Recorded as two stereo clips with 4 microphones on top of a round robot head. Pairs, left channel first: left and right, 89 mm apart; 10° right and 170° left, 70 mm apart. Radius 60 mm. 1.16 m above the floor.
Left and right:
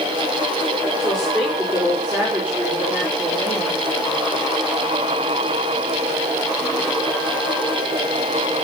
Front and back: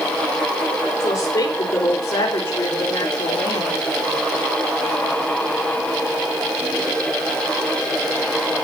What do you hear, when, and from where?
1.0 s a woman speaking: straight ahead, 4 m; by 3.8 s 20° right, 4.5 m